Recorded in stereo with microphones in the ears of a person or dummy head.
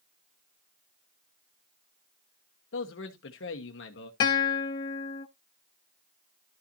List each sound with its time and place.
2.7 s a man speaking: 55° left (ahead or behind), 1.2 m
4.2 s a guitar: 20° left (ahead or behind), 0.6 m